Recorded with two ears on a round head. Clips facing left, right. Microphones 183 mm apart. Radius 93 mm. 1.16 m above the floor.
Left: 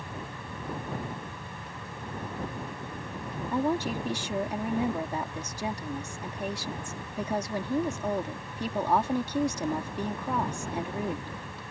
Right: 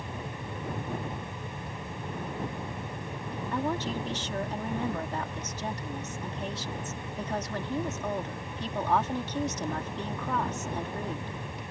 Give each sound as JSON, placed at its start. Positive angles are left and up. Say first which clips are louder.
{"t": 3.5, "sound": "a woman speaking", "louder": "left 4 dB", "side_deg": 10}